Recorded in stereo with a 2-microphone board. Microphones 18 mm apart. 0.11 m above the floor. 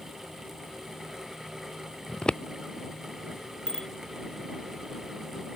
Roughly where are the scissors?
Left.